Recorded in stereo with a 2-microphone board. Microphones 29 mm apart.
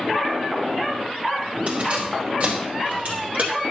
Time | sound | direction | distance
1.7 | keys jangling | 55° right (ahead or behind) | 5 m